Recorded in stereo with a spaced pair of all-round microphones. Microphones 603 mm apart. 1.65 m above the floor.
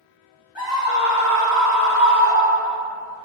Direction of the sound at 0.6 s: 45° left (ahead or behind).